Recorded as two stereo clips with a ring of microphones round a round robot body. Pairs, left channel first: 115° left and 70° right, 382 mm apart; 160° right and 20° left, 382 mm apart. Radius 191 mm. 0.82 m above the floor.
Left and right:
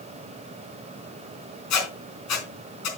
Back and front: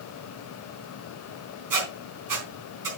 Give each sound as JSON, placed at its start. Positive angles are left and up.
{"t": 1.7, "sound": "a squeak", "azimuth_deg": 60, "distance_m": 4.0}